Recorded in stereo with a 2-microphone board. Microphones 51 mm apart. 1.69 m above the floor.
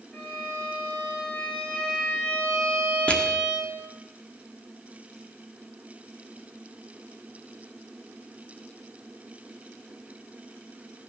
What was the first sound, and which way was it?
A violin, 15° left (ahead or behind).